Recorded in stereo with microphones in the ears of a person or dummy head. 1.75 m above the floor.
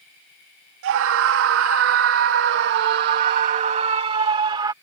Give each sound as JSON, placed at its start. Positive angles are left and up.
{"t": 0.8, "sound": "a scream", "side_deg": -65}